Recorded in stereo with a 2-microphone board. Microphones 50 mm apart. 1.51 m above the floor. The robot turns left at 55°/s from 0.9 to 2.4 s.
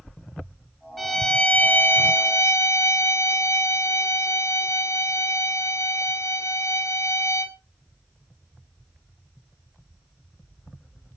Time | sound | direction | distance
1.0 | a violin | 170° left | 3 m